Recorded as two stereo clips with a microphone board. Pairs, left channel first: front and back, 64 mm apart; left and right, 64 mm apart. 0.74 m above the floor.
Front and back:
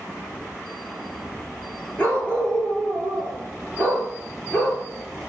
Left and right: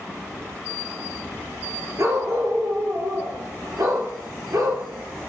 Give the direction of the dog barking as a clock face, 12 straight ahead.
2 o'clock.